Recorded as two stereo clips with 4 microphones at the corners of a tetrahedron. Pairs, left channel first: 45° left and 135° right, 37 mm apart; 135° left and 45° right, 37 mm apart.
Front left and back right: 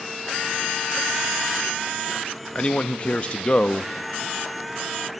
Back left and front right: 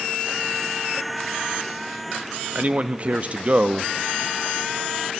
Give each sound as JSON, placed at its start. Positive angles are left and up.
{"t": 2.5, "sound": "a man speaking", "azimuth_deg": -5, "distance_m": 0.9}